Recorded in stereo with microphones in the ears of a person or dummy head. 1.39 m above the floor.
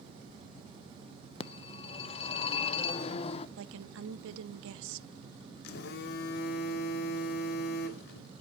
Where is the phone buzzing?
60° left (ahead or behind), 1.1 m.